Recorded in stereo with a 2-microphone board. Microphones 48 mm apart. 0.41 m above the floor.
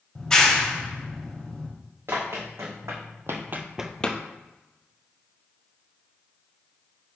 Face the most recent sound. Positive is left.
turn(degrees=30)  # may be behind; listen again after turning